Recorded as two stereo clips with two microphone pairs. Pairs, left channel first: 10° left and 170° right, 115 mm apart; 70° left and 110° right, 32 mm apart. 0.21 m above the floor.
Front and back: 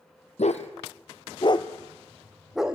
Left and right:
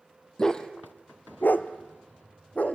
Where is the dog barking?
Straight ahead, 1.8 m; by 2.8 s 110° left, 2 m.